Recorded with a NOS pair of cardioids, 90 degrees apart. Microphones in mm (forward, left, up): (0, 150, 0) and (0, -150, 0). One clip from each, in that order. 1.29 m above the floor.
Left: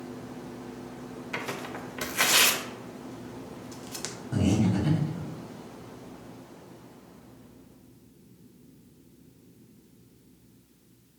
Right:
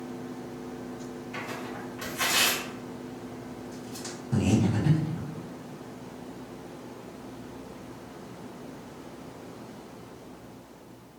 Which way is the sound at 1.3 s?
65° left.